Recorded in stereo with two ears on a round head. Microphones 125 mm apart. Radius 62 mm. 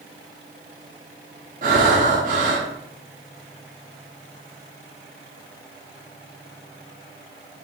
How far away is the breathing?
About 0.9 m.